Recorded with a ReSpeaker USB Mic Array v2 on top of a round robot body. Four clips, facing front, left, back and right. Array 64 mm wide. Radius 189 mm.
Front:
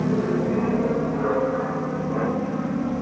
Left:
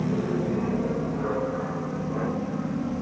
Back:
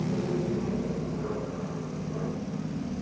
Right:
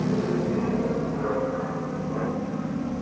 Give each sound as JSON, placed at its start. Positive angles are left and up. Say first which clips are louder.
{"t": 0.0, "sound": "an aircraft", "louder": "right 1 dB, front 7 dB", "azimuth_deg": -10}